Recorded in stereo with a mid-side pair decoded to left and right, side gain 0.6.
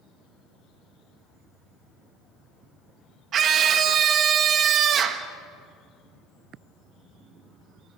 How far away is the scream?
About 1.7 m.